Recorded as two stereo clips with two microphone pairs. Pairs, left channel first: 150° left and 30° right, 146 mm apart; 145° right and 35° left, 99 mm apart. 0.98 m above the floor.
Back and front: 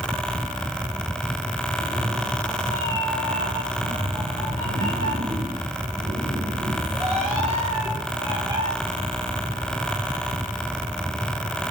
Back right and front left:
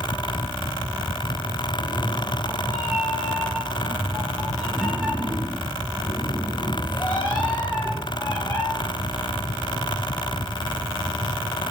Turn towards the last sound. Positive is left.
turn(degrees=-85)